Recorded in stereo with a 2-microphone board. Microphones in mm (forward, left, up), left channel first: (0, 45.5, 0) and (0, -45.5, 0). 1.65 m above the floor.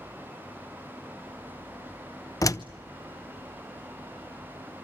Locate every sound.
2.4 s a door slam: 40° left (ahead or behind), 0.6 m